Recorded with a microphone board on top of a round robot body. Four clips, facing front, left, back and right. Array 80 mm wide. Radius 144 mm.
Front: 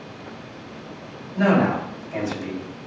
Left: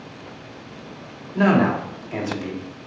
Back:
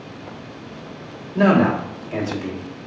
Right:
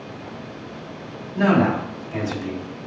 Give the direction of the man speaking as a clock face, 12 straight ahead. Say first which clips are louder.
Even, back 3 dB; 8 o'clock.